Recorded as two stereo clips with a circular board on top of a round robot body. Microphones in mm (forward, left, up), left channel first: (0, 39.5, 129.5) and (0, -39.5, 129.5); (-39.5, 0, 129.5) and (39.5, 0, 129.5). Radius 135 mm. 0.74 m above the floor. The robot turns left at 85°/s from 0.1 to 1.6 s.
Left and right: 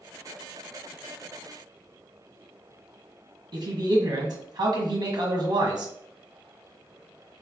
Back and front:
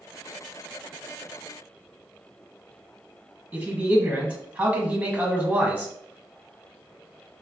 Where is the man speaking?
70° right, 1.6 m.